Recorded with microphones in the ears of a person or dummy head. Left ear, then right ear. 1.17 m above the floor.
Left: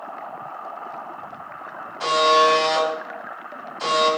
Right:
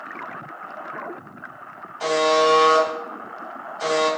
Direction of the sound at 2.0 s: Centre (ahead or behind).